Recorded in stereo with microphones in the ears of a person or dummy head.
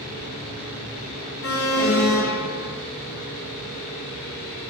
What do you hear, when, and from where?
1.4 s an alarm: 40° left (ahead or behind), 0.8 m